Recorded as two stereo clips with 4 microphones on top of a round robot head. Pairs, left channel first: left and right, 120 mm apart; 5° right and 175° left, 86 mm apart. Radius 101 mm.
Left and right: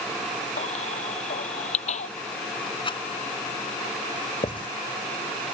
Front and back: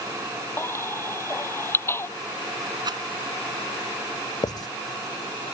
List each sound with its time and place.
0.6 s a baby crying: 55° left
2.8 s a rattle: 140° left
4.4 s writing: 35° left